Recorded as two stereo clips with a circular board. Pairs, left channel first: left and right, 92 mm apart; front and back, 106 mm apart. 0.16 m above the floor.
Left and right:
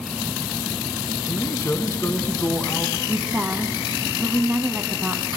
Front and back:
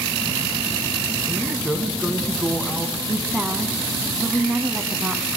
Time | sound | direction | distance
1.3 | a man speaking | 100° left | 1.5 m
3.1 | a woman speaking | 135° right | 1.0 m